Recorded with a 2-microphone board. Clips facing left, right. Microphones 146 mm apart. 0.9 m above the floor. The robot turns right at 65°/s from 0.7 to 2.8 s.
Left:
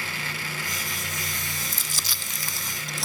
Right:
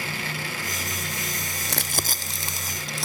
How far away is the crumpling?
About 0.7 m.